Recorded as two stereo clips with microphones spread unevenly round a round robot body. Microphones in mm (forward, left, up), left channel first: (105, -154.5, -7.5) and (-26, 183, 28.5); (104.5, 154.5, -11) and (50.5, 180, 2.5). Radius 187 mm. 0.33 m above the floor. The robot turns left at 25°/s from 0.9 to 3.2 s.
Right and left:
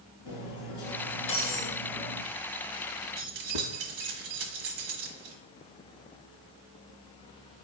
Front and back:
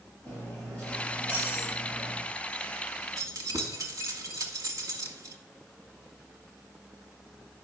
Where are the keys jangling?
125° left, 1.7 m.